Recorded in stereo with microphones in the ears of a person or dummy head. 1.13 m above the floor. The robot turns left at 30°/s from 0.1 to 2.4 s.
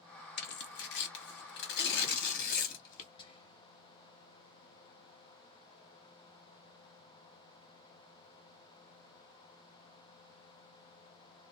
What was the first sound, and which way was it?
Tearing paper, 45° left (ahead or behind).